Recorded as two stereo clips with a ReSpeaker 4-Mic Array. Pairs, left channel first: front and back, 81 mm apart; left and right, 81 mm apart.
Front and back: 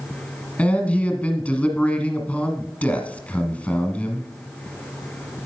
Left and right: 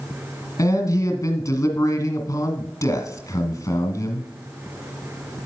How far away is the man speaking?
About 1.5 m.